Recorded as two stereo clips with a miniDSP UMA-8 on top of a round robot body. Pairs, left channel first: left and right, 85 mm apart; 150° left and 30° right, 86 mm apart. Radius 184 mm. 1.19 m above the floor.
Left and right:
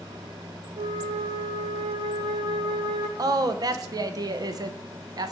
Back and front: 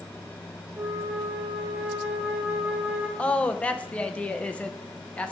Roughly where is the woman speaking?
Behind right.